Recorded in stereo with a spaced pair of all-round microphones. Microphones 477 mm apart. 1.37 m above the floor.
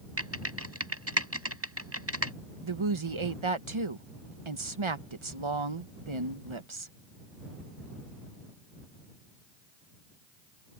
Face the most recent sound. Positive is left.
turn(degrees=-75)  # may be behind; listen again after turning